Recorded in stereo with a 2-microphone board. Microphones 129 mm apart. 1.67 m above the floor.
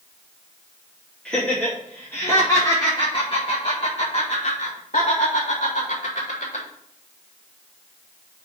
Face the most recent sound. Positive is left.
turn(degrees=80)